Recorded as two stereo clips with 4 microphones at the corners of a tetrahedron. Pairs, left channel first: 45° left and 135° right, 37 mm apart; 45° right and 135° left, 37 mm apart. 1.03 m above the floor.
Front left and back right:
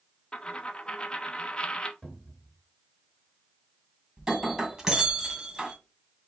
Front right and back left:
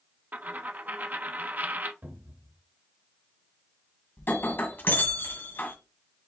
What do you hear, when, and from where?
0.3 s a dropped coin: 105° left, 0.6 m
2.0 s a cupboard door: 120° left, 1.8 m
4.2 s breaking glass: 55° right, 1.9 m